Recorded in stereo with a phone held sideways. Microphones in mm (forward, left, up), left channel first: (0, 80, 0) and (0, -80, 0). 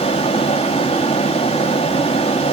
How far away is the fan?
About 3 m.